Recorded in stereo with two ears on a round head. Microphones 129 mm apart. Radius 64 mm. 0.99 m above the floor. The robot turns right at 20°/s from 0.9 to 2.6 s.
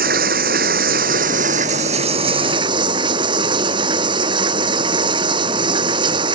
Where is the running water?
65° right; by 6.3 s 30° right.